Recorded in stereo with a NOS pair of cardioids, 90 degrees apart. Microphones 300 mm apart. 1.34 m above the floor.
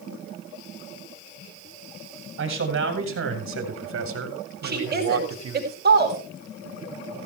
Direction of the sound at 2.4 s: 45° right.